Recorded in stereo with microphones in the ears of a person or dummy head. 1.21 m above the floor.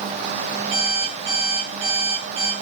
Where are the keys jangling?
No keys jangling in this recording.